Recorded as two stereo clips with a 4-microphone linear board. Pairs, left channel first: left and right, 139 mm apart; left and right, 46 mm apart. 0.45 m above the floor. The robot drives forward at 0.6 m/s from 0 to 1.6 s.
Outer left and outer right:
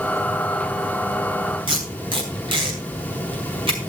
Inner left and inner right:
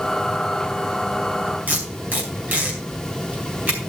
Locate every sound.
1.7 s tape being pulled: 40° right (ahead or behind), 4 m